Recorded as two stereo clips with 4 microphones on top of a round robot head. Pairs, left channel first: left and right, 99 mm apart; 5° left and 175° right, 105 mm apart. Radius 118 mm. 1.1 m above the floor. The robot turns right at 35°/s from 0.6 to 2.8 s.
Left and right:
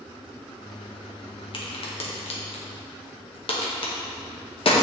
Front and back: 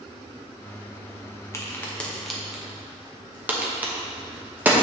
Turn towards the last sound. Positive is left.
turn(degrees=110)